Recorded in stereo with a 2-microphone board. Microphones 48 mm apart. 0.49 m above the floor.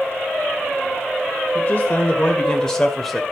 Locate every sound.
1.6 s a man speaking: 40° left (ahead or behind), 2 m; by 3.2 s centre (ahead or behind), 2 m